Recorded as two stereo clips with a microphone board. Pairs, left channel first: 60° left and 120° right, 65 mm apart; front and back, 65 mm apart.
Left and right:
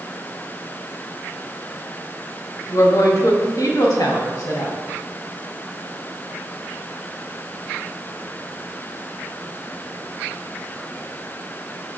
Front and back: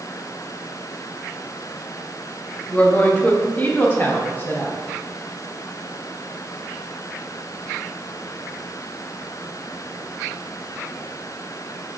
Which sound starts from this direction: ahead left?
A woman speaking, at 2.7 s.